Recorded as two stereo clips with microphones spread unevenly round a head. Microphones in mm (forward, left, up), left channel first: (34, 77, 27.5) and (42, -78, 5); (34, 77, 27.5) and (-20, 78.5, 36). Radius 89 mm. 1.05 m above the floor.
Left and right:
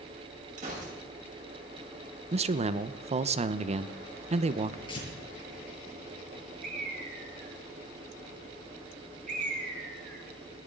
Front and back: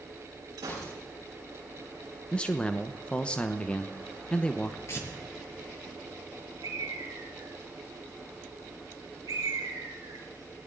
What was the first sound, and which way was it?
A gunshot, 140° right.